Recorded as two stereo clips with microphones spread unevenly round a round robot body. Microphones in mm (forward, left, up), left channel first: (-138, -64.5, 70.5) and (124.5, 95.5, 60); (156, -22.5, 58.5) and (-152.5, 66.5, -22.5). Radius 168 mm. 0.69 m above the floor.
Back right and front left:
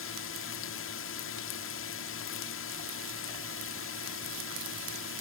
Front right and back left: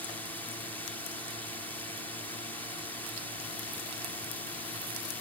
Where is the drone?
110° right.